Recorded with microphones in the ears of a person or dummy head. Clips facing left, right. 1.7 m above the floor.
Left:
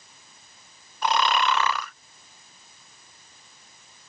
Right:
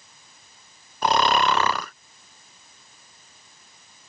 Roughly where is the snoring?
Right.